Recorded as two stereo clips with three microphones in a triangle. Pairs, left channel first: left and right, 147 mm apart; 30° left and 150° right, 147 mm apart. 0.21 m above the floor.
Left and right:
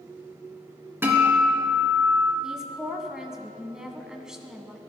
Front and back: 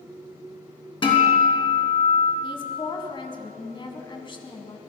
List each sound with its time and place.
1.0 s a guitar: 20° right, 3 m
2.4 s a woman speaking: 5° right, 1.8 m